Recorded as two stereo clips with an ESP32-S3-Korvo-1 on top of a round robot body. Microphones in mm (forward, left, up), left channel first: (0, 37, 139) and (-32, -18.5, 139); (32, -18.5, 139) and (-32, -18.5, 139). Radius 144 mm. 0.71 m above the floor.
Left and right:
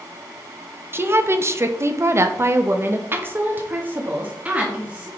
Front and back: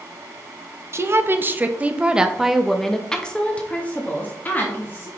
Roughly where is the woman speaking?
Behind.